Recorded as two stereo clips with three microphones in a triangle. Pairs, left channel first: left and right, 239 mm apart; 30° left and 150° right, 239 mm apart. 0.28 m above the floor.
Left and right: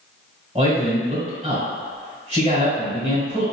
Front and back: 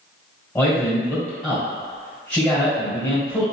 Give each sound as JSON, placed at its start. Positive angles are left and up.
{"t": 0.6, "sound": "a man speaking", "azimuth_deg": -50, "distance_m": 1.4}